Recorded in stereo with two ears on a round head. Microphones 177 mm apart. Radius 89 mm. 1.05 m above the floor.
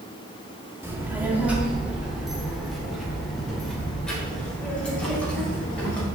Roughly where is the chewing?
No chewing in this recording.